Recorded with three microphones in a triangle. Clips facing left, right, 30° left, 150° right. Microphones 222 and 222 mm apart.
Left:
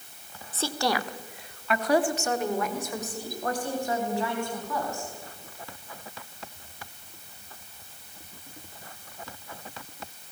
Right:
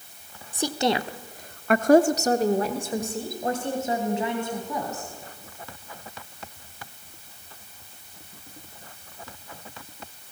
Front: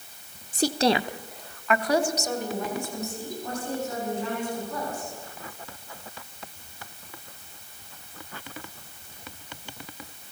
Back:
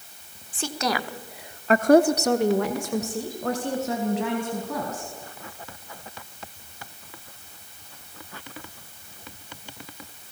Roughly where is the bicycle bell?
I don't hear a bicycle bell.